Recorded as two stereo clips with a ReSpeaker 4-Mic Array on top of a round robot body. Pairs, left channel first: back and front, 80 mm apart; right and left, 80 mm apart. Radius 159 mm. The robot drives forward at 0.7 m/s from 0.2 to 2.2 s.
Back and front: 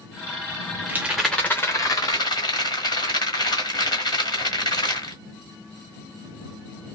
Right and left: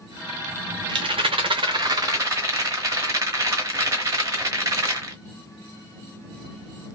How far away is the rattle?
About 0.6 m.